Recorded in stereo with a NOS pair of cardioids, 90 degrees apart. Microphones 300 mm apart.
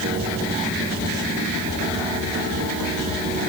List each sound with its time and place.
Only background noise.